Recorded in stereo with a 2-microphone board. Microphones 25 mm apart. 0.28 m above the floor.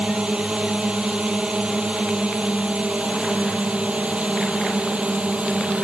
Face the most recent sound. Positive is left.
turn(degrees=-60)  # may be behind; listen again after turning